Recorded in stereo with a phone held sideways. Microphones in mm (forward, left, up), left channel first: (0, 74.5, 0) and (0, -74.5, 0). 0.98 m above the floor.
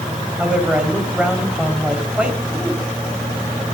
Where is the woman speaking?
5° right (ahead or behind), 4 m.